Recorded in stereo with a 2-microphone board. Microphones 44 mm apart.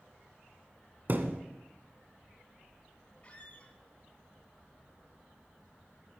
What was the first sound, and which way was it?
A thud, 45° right (ahead or behind).